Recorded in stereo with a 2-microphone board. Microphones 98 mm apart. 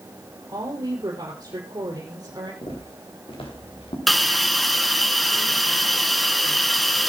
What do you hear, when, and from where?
0.5 s a woman speaking: 45° right (ahead or behind), 3.5 m
2.6 s footsteps: 70° left (ahead or behind), 6 m; by 4.0 s 65° left (ahead or behind), 4 m
4.1 s a hiss: centre (ahead or behind), 2.0 m